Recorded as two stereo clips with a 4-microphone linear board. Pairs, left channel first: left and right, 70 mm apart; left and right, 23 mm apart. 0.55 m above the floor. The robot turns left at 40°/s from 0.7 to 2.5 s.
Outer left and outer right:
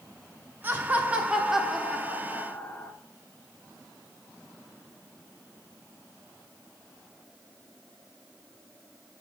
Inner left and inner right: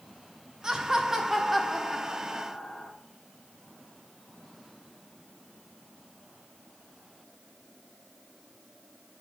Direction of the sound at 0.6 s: 135° right.